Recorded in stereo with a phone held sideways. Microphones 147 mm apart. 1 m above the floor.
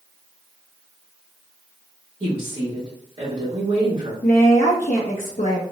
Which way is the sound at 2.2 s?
45° right (ahead or behind).